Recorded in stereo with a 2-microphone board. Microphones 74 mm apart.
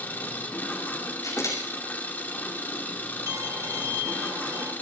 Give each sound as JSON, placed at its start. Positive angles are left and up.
{"t": 0.0, "sound": "an engine running", "side_deg": 25, "distance_m": 1.8}
{"t": 1.2, "sound": "a camera shutter", "side_deg": 55, "distance_m": 7.0}
{"t": 3.3, "sound": "a violin", "side_deg": -60, "distance_m": 2.0}